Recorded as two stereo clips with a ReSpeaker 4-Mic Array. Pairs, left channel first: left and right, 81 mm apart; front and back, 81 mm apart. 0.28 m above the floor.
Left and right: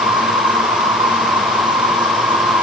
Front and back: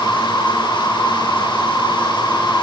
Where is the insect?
70° right, 10 m.